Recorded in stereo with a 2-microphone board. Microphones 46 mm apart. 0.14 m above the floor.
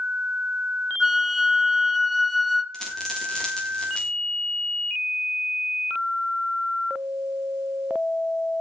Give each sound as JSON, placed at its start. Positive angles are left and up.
{"t": 1.0, "sound": "a flute", "side_deg": 0, "distance_m": 1.2}
{"t": 2.7, "sound": "a dropped coin", "side_deg": 10, "distance_m": 7.5}